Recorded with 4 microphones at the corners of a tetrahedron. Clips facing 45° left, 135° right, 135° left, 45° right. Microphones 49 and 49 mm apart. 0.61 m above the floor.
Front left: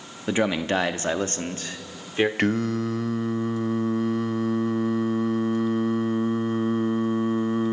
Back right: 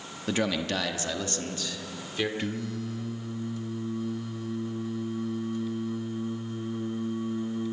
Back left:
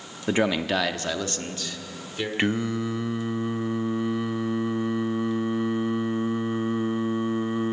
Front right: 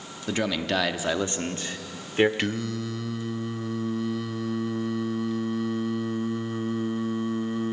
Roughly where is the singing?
Ahead left.